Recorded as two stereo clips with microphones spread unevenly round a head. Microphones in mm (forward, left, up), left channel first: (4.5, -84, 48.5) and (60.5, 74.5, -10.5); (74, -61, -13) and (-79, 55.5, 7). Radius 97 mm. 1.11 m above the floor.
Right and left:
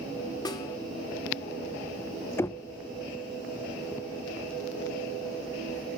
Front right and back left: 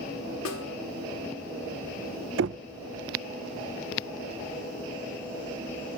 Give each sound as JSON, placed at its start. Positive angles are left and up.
{"t": 0.5, "sound": "a snare drum", "azimuth_deg": -50, "distance_m": 1.7}
{"t": 2.4, "sound": "knocking", "azimuth_deg": 165, "distance_m": 0.6}